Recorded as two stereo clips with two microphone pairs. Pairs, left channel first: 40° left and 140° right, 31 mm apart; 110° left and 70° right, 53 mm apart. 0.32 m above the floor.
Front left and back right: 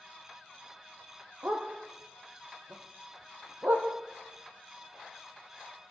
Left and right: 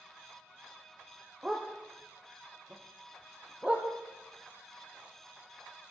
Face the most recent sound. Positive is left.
turn(degrees=-140)